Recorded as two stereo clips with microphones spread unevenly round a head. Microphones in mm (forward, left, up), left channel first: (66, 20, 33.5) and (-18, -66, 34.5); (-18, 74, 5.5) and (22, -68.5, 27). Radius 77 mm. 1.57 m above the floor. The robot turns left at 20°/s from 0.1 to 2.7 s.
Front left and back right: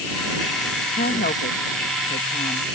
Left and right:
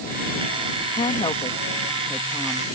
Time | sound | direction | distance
0.9 | a woman speaking | 50° left | ?